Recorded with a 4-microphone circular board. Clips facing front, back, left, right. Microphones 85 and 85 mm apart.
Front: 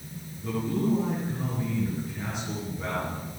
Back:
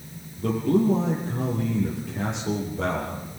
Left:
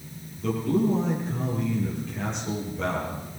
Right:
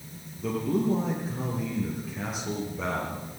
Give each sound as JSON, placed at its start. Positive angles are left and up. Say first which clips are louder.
{"t": 0.4, "sound": "a man speaking", "louder": "back 7 dB, left 3 dB", "azimuth_deg": -175, "distance_m": 7.0}